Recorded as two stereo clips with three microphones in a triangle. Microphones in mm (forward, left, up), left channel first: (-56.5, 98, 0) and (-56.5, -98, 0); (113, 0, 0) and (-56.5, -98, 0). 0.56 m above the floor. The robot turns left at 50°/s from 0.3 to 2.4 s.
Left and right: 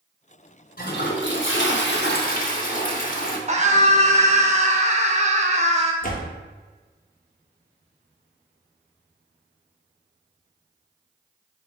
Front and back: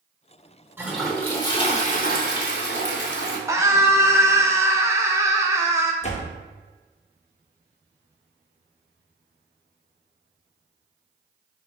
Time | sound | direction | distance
0.8 | a toilet flushing | 130° left | 0.8 m
3.5 | a scream | 85° right | 0.7 m
6.0 | a door slam | 70° left | 0.5 m